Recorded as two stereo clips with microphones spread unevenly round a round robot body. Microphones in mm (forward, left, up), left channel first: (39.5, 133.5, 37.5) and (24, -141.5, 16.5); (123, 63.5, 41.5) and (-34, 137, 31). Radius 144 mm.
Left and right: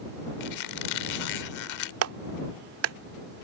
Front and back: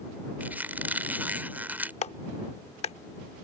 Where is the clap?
80° right.